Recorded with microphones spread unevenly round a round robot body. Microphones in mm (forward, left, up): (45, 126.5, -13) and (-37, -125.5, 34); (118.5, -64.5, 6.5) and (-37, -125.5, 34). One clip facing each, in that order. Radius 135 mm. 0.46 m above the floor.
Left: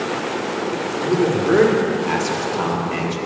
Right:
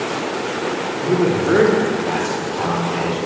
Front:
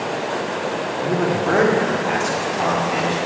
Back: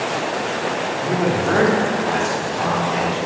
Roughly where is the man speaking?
Ahead right.